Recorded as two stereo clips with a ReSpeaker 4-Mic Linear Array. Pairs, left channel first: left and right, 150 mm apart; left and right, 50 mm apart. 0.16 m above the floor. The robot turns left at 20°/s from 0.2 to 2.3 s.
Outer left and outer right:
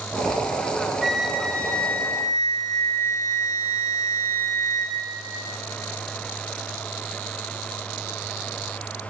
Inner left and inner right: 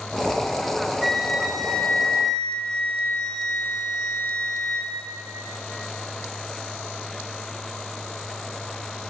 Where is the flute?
Centre (ahead or behind), 2.0 m; by 5.0 s 20° left (ahead or behind), 2.0 m.